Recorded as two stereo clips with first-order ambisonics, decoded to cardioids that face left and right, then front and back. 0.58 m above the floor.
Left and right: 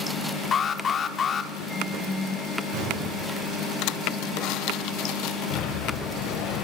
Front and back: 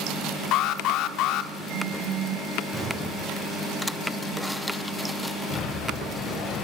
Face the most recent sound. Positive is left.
turn(degrees=55)